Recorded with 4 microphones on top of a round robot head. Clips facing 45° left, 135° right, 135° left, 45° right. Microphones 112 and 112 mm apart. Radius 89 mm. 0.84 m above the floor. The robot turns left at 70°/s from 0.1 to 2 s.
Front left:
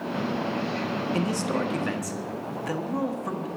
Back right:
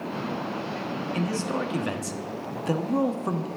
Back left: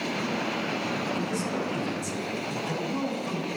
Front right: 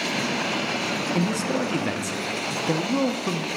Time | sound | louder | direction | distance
1.1 | a man speaking | even, front right 5 dB | 10° right | 1.3 m